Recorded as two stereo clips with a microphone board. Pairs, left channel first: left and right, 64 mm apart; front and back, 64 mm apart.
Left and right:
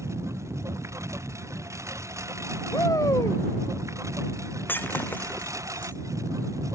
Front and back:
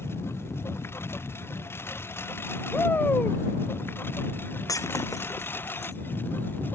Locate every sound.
0.0 s a lawn mower: 50° right; by 6.8 s 55° right
2.7 s a shout: 60° left
4.7 s breaking glass: 35° left